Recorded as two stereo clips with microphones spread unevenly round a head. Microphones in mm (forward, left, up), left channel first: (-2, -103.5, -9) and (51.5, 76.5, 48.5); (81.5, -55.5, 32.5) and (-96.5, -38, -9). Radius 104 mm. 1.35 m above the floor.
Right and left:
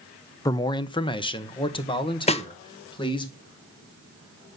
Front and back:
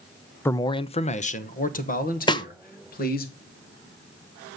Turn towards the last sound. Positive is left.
turn(degrees=-75)